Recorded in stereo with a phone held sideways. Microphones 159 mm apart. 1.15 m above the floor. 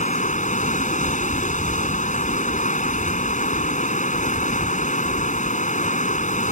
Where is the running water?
50° left (ahead or behind).